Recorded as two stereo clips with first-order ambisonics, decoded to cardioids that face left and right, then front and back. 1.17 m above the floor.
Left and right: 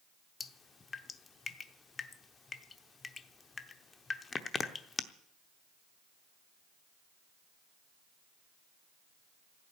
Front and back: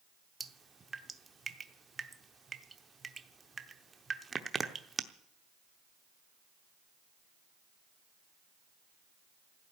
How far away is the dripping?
About 0.8 m.